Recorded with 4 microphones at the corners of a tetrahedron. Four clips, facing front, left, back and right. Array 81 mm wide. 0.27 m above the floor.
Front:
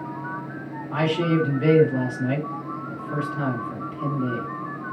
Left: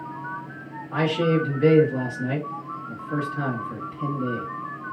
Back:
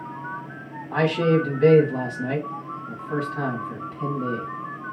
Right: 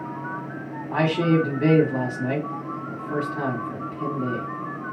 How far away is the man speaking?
About 2 m.